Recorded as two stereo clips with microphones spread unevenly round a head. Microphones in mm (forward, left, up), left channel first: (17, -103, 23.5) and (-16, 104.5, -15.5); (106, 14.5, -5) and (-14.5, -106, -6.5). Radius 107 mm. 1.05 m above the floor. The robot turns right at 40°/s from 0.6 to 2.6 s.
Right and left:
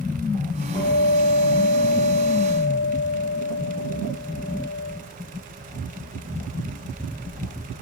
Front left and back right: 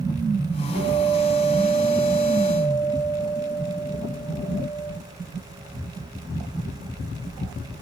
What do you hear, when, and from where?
0.7 s a guitar: 145° right, 6 m; by 4.9 s 70° right, 6 m